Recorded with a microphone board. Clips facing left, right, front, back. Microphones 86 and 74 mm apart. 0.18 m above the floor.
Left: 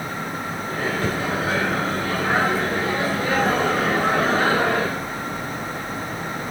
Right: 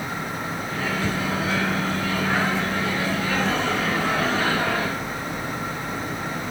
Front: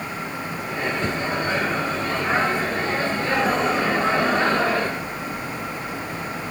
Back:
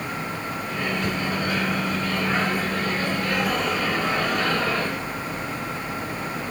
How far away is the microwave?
About 1.5 m.